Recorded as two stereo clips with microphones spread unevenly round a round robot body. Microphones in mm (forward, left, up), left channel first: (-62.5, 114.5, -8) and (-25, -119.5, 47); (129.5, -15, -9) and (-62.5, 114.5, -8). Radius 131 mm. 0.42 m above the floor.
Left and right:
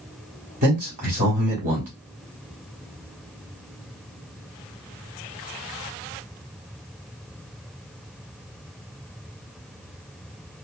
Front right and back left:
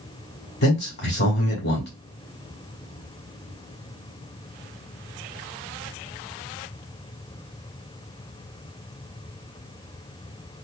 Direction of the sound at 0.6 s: 20° right.